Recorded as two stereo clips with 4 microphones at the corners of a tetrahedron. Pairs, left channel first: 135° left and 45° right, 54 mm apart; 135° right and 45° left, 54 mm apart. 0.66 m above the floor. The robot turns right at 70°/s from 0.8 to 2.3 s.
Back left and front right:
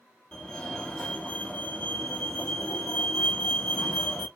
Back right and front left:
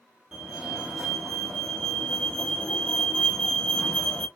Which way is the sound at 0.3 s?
110° left.